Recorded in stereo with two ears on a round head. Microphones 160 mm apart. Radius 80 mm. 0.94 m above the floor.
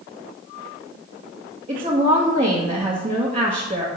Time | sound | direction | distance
1.7 | a woman speaking | 35° right (ahead or behind) | 1.2 m